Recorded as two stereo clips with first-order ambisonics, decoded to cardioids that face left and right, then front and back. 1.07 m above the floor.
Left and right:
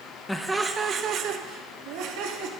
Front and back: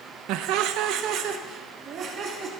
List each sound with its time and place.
0.3 s laughter: 170° left, 0.7 m; by 2.5 s 120° right, 1.6 m